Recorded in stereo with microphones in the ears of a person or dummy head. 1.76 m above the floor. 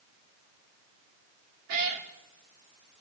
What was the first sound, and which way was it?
A cat meowing, 50° right (ahead or behind).